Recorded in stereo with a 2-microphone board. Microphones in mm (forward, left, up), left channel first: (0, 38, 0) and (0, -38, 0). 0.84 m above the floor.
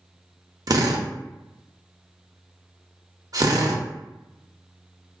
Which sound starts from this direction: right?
A drill, at 0.7 s.